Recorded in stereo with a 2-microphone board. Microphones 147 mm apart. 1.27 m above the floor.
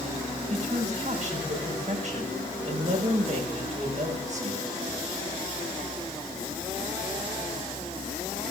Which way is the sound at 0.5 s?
50° right (ahead or behind).